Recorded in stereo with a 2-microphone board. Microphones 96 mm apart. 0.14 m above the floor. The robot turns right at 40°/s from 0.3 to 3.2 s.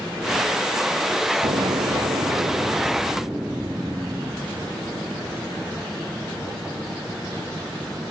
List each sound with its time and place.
1.4 s an explosion: 85° right, 1.4 m; by 4.5 s 15° right, 1.4 m